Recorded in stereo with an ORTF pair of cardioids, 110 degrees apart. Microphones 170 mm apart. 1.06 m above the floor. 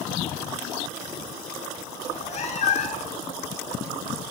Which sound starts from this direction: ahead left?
A cat meowing, at 2.0 s.